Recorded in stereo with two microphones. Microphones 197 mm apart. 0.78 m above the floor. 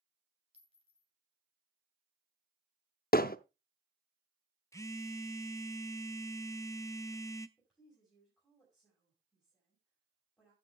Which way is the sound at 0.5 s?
30° right (ahead or behind).